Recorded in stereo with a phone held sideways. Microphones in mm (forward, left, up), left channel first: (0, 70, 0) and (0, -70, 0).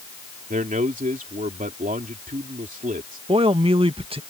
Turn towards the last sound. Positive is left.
turn(degrees=-40)  # may be behind; listen again after turning